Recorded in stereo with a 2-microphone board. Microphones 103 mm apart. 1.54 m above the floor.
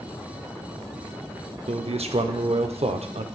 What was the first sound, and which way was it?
A man speaking, 80° right.